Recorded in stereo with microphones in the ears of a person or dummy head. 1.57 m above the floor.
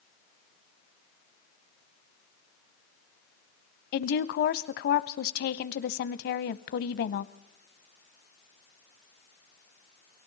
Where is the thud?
I don't hear a thud.